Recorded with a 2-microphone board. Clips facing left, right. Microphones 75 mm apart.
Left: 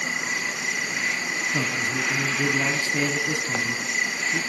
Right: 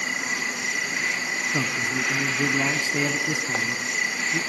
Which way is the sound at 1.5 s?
10° right (ahead or behind).